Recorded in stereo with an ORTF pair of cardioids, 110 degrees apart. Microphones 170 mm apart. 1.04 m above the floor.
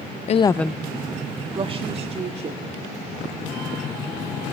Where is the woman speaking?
40° left, 0.5 m; by 2.8 s 40° right, 3 m.